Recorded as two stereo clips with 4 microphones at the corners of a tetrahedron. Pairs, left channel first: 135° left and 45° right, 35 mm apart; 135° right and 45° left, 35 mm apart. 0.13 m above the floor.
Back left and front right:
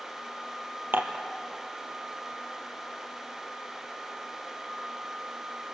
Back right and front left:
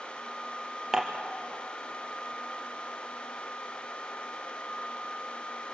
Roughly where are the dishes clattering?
Ahead right.